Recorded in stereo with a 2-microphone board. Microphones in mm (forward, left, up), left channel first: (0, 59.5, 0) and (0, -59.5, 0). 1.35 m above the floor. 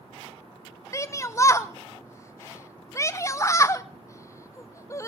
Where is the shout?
25° left (ahead or behind), 1.0 m.